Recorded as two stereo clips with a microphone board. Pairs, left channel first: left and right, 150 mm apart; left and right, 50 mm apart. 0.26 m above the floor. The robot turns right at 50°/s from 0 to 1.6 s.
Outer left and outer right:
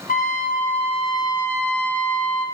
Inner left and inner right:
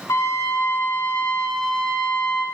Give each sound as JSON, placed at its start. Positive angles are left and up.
{"t": 0.1, "sound": "a trumpet", "azimuth_deg": 95, "distance_m": 1.4}